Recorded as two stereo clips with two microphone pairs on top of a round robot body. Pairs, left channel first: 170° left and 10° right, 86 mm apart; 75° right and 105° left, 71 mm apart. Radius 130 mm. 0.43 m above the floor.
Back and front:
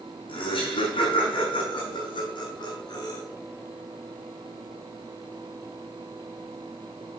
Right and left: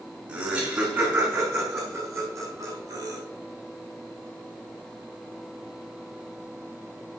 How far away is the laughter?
About 6.5 m.